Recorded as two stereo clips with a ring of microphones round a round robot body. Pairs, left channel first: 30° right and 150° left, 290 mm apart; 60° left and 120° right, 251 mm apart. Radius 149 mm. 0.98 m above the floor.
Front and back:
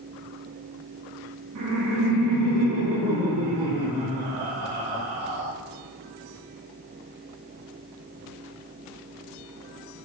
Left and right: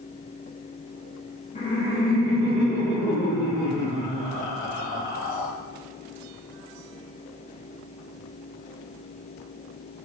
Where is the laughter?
120° left, 1.6 m; by 5.5 s 95° left, 4.5 m.